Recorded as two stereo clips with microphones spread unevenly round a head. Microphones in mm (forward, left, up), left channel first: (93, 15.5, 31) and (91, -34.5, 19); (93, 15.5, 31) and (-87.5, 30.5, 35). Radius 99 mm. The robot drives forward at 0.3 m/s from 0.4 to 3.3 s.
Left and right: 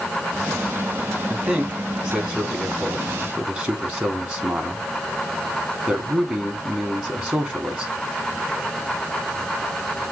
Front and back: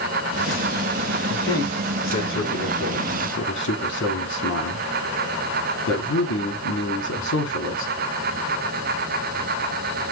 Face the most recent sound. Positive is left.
turn(degrees=-35)